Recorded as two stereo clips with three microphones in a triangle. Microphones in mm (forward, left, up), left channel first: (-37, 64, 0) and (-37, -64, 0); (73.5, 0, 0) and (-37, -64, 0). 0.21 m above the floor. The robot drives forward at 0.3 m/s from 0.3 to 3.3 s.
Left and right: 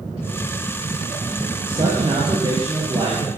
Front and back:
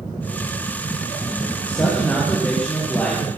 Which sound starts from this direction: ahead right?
A man speaking, at 1.7 s.